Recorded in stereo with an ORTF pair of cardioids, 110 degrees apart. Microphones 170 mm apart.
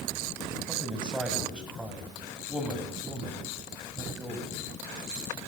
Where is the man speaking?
5° right, 6 m.